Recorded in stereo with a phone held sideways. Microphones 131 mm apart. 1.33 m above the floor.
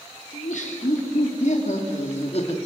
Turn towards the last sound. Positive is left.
turn(degrees=50)  # may be behind; listen again after turning